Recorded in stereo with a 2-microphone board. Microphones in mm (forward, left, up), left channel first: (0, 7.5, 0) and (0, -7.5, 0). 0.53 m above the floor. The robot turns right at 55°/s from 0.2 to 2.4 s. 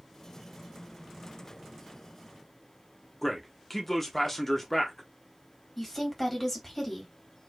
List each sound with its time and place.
3.2 s a man speaking: 15° left (ahead or behind), 0.8 m
5.8 s a woman speaking: 15° left (ahead or behind), 1.4 m